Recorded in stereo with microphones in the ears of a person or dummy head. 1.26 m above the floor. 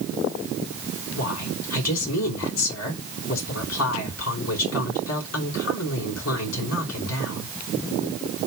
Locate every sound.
1.1 s a woman speaking: 80° left, 4.5 m